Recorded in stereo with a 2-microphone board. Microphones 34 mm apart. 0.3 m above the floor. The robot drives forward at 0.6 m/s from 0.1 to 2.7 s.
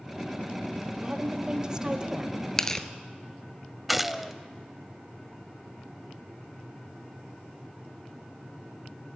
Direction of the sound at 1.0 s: 20° right (ahead or behind).